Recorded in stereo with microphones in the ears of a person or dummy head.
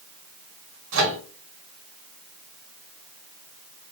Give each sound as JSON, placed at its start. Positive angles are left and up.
{"t": 0.9, "sound": "a microwave", "side_deg": -75, "distance_m": 1.0}